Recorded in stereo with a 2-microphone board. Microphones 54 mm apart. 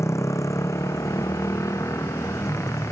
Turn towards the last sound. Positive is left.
turn(degrees=70)  # may be behind; listen again after turning